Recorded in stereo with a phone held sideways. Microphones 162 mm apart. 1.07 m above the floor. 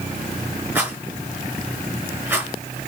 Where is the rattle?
15° right (ahead or behind), 5 m.